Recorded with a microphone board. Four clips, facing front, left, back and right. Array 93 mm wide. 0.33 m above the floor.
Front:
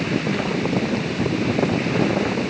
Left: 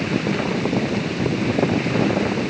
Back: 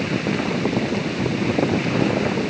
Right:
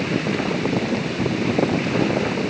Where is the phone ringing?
I don't hear a phone ringing.